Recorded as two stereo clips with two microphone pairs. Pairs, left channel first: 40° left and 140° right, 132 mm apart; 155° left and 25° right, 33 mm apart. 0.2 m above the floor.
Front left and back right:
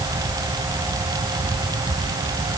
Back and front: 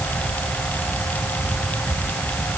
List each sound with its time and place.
Only background noise.